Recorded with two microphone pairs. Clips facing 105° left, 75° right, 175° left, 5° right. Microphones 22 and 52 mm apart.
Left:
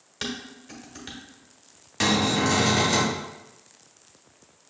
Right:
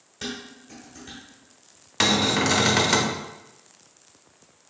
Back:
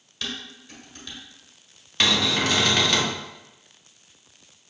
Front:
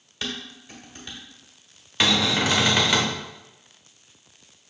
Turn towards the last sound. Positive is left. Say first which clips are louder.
# right 2 dB, front 1 dB
turn(degrees=-75)